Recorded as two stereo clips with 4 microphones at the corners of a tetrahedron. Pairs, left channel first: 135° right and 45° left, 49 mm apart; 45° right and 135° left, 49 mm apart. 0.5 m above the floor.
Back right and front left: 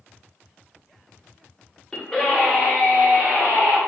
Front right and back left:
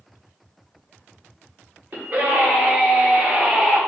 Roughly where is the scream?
Behind left.